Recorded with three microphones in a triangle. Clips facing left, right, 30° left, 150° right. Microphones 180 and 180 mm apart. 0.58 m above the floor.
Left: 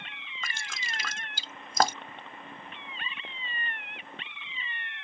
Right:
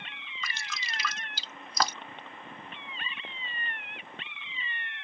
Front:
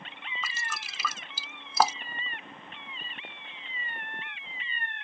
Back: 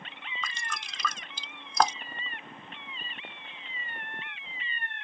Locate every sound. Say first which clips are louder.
0.4 s dripping: even, back 1 dB; 110° left